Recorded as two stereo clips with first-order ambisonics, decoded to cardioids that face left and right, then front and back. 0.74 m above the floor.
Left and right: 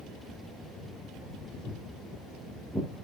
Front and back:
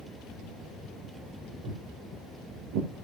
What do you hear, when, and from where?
1.6 s footsteps: straight behind, 8.5 m